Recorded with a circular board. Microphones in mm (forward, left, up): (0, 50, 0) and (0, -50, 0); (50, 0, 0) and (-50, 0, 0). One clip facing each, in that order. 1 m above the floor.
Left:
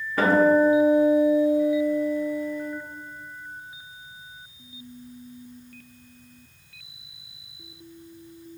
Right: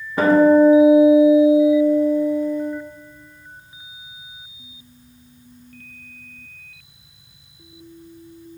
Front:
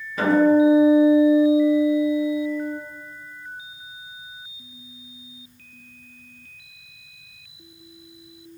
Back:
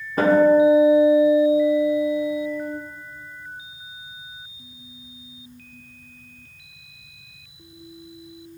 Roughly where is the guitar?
Behind right.